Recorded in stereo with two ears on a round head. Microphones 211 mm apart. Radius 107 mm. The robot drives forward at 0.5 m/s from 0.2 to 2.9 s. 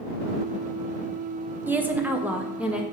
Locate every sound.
1.7 s a woman speaking: 10° right (ahead or behind), 0.9 m; by 2.8 s 5° right (ahead or behind), 1.4 m